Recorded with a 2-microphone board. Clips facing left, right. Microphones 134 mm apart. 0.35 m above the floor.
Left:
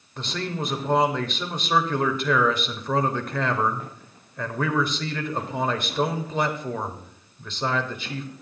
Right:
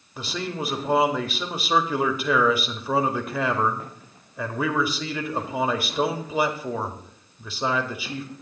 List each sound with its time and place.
0.2 s a man speaking: 5° right (ahead or behind), 1.1 m